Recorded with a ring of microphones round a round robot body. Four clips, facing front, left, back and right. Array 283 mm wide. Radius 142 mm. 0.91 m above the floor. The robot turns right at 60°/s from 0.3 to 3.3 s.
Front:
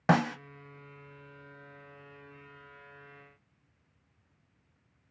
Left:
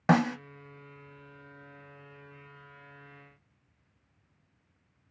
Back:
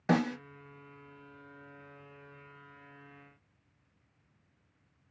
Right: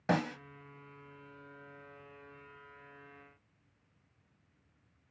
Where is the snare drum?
45° left, 0.9 m; by 0.4 s 50° left, 0.9 m.